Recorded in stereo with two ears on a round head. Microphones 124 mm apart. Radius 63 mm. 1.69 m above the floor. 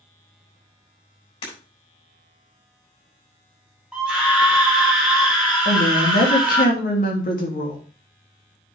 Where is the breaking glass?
35° left (ahead or behind), 7 m.